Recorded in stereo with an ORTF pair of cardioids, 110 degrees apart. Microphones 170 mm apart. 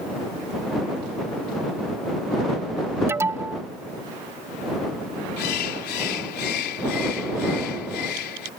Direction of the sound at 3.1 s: 15° right.